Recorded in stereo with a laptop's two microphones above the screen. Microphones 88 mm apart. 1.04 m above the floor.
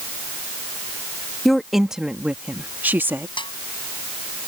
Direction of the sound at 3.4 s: 70° left (ahead or behind).